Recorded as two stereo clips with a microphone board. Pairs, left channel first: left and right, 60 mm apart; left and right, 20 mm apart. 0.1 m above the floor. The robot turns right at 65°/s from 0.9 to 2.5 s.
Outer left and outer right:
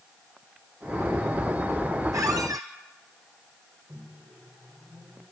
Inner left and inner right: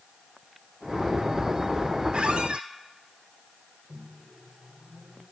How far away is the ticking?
I don't hear ticking.